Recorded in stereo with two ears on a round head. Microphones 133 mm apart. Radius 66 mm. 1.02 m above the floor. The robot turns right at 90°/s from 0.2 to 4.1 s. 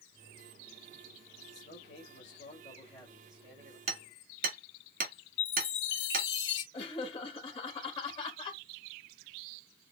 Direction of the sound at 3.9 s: 40° right (ahead or behind).